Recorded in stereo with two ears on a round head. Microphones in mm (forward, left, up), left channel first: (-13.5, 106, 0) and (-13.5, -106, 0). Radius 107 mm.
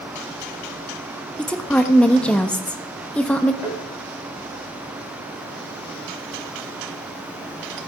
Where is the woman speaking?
5° left (ahead or behind), 0.7 m.